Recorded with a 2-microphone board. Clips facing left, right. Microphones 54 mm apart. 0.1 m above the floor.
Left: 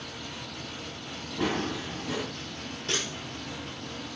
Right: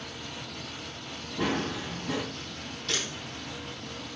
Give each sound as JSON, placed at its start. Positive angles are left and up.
{"t": 1.4, "sound": "running footsteps", "side_deg": 0, "distance_m": 1.6}
{"t": 2.9, "sound": "a camera shutter", "side_deg": 35, "distance_m": 3.0}